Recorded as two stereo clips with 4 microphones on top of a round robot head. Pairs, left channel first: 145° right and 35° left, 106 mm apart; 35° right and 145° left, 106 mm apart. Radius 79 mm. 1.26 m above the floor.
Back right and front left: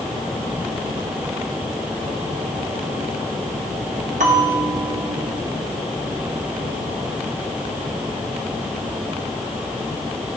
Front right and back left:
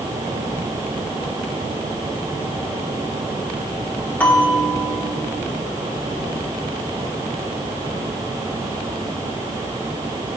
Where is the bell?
40° left, 1.7 m.